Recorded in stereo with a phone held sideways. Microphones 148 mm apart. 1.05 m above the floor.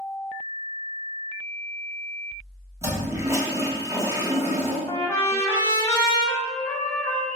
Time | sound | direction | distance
2.8 | a toilet flushing | 20° right (ahead or behind) | 0.9 m
4.9 | a trumpet | 20° left (ahead or behind) | 0.9 m